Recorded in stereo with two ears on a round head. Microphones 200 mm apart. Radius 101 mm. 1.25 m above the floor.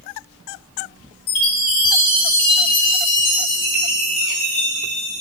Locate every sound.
1.3 s a chime: 70° left (ahead or behind), 2.0 m